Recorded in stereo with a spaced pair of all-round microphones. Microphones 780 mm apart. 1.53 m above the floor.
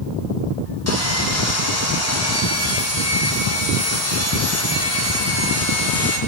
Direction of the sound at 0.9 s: 20° left (ahead or behind).